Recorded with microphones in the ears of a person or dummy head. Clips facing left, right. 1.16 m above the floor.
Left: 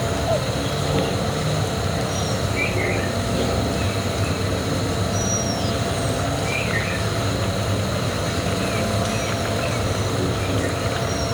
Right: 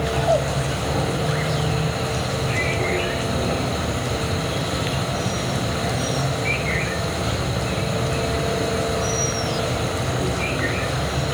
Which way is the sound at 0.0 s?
65° left (ahead or behind).